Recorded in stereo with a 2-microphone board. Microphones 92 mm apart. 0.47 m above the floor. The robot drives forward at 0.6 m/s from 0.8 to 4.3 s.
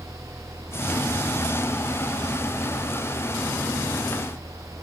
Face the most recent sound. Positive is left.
No sound to turn to.